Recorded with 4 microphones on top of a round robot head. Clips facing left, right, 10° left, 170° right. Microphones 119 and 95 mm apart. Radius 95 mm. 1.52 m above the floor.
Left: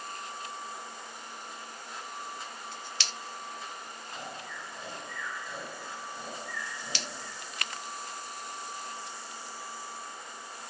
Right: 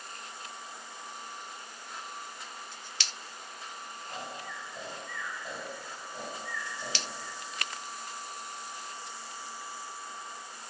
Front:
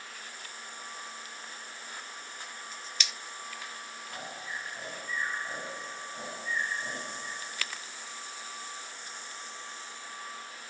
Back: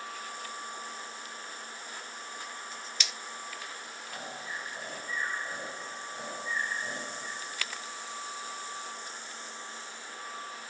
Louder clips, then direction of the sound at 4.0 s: Right 2 dB, back 1 dB; 90° right.